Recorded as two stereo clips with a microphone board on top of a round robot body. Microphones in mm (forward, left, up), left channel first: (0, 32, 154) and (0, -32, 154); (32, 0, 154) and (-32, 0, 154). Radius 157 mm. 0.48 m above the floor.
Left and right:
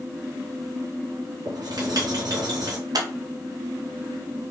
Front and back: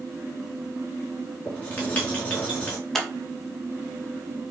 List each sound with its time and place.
1.4 s writing: 70° right, 4 m
3.0 s scissors: 85° right, 1.9 m